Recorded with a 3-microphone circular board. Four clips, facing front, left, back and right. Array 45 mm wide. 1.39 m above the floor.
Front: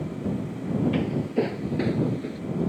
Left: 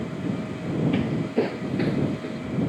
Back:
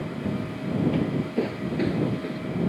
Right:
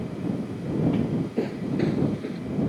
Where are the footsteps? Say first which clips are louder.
Left 2 dB, even; 65° left; by 2.4 s 175° left.